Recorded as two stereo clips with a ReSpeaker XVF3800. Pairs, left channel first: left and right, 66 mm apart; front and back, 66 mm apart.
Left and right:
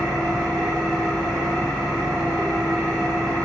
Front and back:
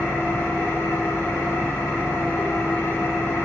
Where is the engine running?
10° left, 1.3 m.